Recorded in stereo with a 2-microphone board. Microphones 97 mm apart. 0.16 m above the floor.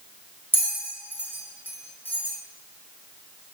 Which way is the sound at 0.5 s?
20° left (ahead or behind).